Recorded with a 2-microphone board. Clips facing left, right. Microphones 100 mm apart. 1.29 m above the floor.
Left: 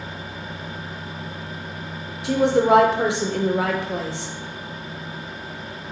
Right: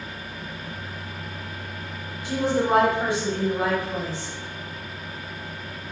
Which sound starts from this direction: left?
A woman speaking, at 2.2 s.